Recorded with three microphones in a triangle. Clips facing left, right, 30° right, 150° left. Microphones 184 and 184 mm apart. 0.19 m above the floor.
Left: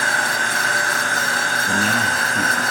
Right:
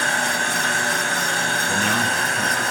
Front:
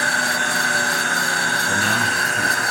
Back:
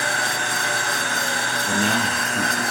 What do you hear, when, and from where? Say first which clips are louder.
0.0 s an insect: even, front 2 dB; 35° right, 1.7 m
1.6 s a man speaking: left 2 dB, back 4 dB; 115° left, 2.5 m